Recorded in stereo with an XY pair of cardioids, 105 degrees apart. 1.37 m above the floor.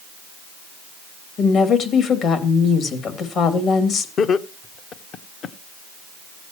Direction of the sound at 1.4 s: 65° left.